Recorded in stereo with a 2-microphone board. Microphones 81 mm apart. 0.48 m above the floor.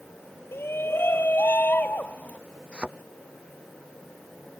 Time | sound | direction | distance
0.5 | a shout | 30° left (ahead or behind) | ?
2.7 | a thud | 15° right (ahead or behind) | ?